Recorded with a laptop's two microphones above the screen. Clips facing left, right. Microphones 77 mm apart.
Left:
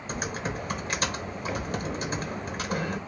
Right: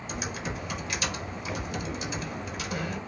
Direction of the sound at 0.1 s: 45° left (ahead or behind).